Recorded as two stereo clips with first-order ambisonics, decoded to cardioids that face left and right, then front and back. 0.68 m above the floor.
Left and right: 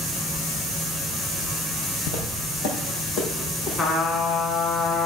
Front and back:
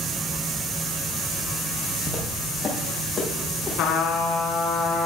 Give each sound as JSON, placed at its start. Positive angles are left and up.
{"t": 2.1, "sound": "footsteps", "azimuth_deg": 70, "distance_m": 1.6}
{"t": 3.8, "sound": "a trumpet", "azimuth_deg": 25, "distance_m": 1.2}